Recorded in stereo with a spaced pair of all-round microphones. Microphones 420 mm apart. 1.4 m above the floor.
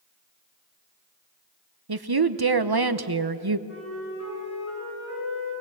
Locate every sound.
1.9 s a woman speaking: 60° right (ahead or behind), 1.0 m
3.7 s a flute: 30° left (ahead or behind), 10 m